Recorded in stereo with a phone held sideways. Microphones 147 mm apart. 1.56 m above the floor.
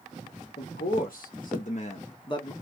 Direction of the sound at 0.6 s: 85° left.